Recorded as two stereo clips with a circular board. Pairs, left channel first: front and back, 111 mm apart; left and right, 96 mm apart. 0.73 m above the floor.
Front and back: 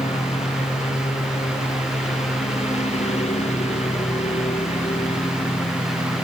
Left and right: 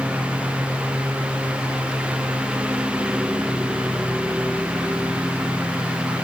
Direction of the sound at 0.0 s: 10° right.